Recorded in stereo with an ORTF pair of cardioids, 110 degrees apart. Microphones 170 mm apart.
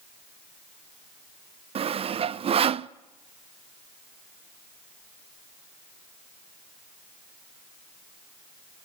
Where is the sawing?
35° right, 0.6 m.